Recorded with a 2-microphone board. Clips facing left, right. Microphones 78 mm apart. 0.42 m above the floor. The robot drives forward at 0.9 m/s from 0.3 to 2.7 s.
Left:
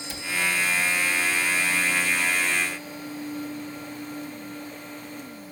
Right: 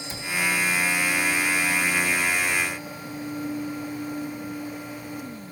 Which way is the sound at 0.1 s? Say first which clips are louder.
Even; 20° right (ahead or behind).